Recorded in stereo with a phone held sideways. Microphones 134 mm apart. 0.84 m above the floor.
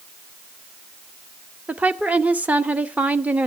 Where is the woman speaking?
10° right (ahead or behind), 1.1 m.